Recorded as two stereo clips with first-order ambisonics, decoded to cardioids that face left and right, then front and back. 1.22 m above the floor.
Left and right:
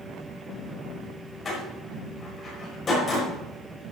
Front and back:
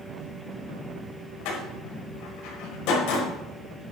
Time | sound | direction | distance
1.4 | a door slam | 25° left | 5.5 m